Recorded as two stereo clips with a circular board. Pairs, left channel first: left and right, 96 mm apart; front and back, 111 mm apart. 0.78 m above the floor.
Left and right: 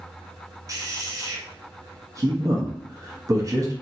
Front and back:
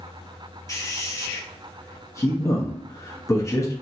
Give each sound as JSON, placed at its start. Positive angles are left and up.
{"t": 0.7, "sound": "a man speaking", "azimuth_deg": -50, "distance_m": 0.8}